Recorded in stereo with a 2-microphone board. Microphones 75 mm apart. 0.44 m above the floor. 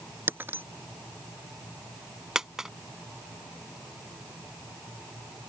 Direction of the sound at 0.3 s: 30° right (ahead or behind).